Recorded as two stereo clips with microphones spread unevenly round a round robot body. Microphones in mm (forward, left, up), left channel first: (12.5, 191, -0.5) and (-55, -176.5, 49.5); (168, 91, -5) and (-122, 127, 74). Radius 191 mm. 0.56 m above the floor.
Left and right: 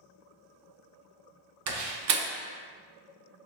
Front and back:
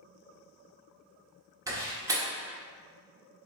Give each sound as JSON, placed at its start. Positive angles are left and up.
{"t": 1.7, "sound": "a door slam", "azimuth_deg": -90, "distance_m": 0.6}